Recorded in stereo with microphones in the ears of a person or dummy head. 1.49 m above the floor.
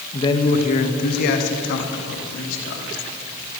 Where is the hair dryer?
No hair dryer in this recording.